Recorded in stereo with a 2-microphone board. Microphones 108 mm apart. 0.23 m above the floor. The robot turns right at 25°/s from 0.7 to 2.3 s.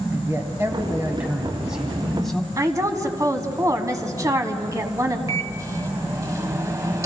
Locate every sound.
0.1 s a man speaking: 35° right, 1.6 m; by 2.5 s 5° left, 1.6 m
2.6 s a woman speaking: 30° right (ahead or behind), 1.3 m
5.3 s a microwave: 30° right (ahead or behind), 0.9 m